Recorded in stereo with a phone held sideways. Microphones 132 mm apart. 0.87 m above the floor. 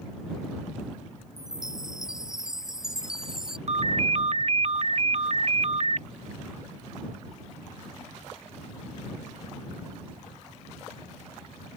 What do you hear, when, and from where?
1.4 s a chime: 5° right (ahead or behind)
3.7 s a ringtone: 55° right (ahead or behind)